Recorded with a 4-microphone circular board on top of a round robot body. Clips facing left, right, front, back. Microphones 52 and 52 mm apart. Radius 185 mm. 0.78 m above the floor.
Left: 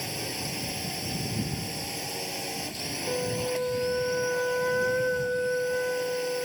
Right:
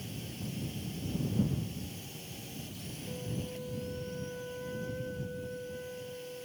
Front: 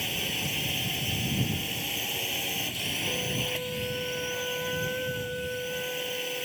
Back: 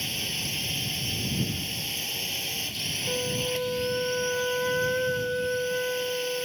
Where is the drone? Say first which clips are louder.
Left 8 dB, front 1 dB; 80° left.